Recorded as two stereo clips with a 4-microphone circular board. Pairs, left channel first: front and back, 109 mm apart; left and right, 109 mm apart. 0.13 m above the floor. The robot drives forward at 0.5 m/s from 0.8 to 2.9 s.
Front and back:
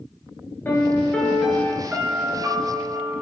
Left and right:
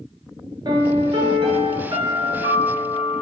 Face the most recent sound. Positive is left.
turn(degrees=-140)